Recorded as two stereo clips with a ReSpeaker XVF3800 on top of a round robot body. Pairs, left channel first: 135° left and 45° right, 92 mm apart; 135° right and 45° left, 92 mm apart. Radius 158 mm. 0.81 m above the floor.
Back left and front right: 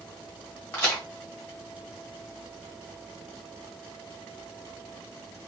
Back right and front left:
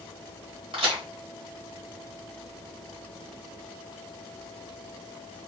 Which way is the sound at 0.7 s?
65° left.